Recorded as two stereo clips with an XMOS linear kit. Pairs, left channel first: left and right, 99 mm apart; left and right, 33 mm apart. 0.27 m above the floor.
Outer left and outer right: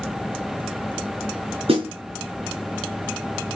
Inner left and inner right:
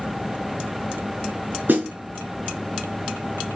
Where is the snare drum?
70° right (ahead or behind), 4 m.